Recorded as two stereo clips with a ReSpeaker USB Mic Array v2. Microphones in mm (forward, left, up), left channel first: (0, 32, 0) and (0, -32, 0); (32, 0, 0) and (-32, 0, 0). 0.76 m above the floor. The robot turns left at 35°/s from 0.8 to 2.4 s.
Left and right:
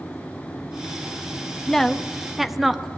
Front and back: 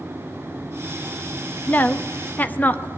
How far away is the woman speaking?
About 0.9 m.